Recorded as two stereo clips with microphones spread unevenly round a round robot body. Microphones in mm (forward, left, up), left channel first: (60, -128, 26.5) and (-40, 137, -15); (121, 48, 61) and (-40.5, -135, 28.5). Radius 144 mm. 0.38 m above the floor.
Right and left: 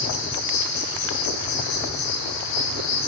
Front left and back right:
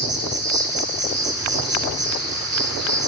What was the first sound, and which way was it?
An insect, 90° right.